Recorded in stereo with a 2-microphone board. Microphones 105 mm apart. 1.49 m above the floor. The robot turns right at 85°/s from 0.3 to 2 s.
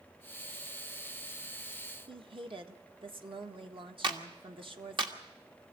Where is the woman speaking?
55° right (ahead or behind), 1.5 m.